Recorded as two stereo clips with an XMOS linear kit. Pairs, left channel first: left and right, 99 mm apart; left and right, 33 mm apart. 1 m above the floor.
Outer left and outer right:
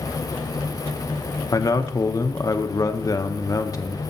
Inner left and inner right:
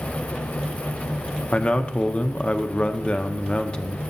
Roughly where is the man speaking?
Left.